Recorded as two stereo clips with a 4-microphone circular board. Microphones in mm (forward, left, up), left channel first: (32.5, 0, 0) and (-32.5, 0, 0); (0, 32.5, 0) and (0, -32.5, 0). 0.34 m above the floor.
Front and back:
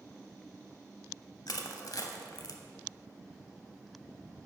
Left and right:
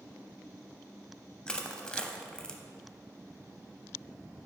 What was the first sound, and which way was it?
Crushing, 15° left.